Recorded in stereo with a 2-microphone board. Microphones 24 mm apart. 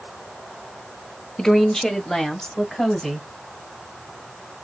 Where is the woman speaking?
25° left (ahead or behind), 1.0 m; by 3.3 s 15° left (ahead or behind), 1.8 m.